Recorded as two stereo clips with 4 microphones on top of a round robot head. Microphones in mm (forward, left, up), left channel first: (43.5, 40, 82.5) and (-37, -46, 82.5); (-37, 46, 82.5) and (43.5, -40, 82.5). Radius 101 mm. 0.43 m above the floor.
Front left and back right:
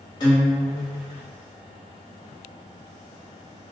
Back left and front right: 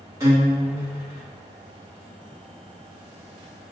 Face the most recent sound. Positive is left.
turn(degrees=10)